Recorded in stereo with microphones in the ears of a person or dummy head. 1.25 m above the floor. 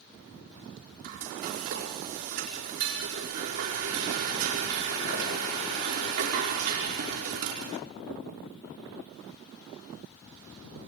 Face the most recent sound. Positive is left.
turn(degrees=-50)  # may be behind; listen again after turning